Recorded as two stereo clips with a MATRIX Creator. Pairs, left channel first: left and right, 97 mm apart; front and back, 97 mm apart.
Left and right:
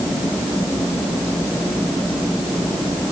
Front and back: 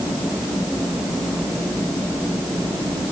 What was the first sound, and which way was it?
Only background noise.